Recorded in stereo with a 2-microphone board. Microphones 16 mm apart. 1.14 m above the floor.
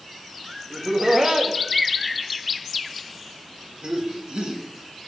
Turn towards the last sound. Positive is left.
turn(degrees=-60)  # may be behind; listen again after turning